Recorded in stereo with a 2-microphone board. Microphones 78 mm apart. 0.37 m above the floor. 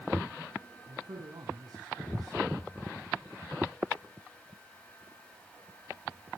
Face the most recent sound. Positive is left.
turn(degrees=-60)  # may be behind; listen again after turning